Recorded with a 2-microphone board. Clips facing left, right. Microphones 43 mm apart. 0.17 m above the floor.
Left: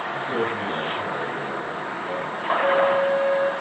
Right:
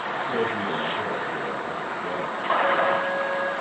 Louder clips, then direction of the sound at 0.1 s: Even; 5° right (ahead or behind).